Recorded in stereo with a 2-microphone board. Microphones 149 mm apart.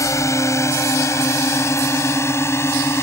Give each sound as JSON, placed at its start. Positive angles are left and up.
{"t": 0.0, "sound": "a drone", "side_deg": 20}